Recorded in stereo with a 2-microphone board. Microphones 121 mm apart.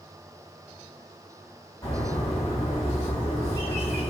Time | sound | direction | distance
1.8 | a bird | 55° left (ahead or behind) | 1.9 m